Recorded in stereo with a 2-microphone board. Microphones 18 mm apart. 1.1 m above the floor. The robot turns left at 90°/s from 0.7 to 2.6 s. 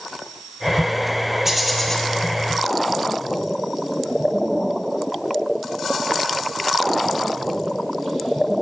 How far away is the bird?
About 1.3 m.